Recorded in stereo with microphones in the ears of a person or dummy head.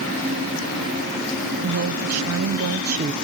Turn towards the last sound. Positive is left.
turn(degrees=-20)  # may be behind; listen again after turning